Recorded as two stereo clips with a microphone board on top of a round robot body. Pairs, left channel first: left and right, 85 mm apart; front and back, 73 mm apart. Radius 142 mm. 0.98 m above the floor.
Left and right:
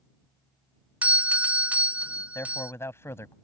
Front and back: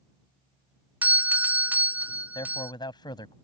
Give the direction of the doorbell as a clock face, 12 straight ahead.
5 o'clock.